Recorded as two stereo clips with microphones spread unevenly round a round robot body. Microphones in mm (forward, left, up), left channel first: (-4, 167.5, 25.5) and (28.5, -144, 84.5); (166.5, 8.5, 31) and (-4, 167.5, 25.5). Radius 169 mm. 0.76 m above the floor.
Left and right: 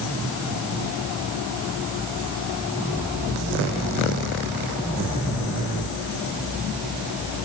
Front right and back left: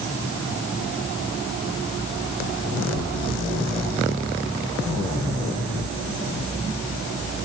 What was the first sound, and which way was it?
Only background noise.